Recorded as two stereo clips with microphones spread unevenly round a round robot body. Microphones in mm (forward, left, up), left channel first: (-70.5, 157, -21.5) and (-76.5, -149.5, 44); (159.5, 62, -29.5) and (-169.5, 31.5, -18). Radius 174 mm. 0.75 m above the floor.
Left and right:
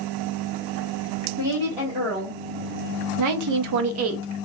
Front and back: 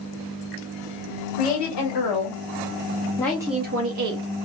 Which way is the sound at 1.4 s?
10° right.